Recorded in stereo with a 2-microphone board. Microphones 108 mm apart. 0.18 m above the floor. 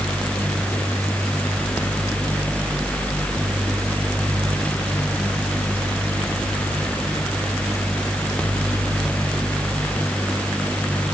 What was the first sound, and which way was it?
Only background noise.